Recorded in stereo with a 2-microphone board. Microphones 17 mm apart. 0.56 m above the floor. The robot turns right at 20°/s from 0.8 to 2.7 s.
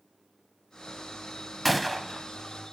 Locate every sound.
1.6 s a gunshot: centre (ahead or behind), 0.7 m; by 2.3 s 15° left (ahead or behind), 0.7 m